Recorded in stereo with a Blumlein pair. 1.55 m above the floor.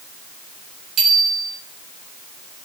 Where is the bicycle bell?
30° right, 7.5 m.